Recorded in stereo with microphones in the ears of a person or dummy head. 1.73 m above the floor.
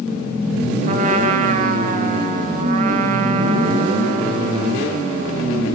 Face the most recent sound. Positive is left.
turn(degrees=-45)  # may be behind; listen again after turning